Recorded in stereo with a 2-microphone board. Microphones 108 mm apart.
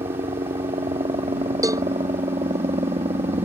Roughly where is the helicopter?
Right.